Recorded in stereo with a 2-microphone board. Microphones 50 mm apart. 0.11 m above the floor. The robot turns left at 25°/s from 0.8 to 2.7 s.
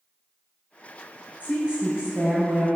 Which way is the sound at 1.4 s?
105° right.